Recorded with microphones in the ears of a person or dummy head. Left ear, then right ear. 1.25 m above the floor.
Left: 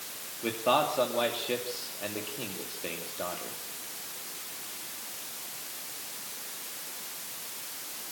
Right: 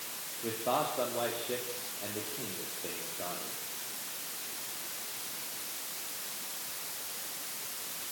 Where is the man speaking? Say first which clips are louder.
Left 6 dB; 70° left (ahead or behind), 2.5 m.